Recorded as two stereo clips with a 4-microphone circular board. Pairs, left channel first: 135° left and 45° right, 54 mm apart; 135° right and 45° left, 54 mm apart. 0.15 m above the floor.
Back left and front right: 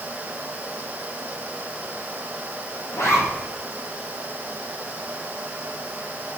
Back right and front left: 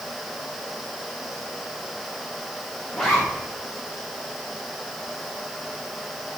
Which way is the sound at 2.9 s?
150° left.